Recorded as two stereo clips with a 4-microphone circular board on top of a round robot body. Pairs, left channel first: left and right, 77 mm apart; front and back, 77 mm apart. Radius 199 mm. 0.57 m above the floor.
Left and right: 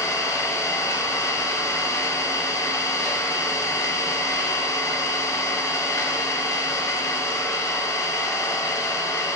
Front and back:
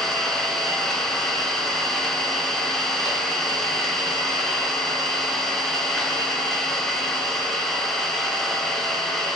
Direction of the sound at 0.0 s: 85° left.